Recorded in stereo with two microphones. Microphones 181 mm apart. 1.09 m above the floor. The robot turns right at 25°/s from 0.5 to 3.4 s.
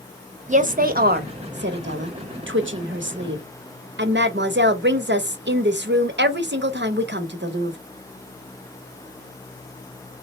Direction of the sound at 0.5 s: 140° right.